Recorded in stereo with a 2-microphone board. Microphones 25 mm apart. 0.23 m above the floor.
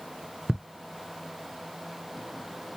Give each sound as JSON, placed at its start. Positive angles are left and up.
{"t": 0.5, "sound": "ticking", "side_deg": -40, "distance_m": 1.6}